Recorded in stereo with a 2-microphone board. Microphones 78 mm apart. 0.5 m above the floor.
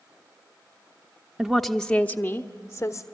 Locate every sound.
1.4 s a woman speaking: 10° right (ahead or behind), 0.7 m; by 3.0 s 45° left (ahead or behind), 1.2 m